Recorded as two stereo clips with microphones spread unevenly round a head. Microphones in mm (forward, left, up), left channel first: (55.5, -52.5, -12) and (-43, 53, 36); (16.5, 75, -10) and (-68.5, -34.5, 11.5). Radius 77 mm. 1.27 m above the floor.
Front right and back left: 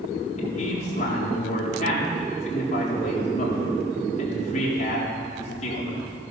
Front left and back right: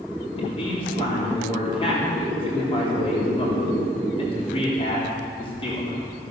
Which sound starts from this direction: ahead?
A man speaking, at 0.4 s.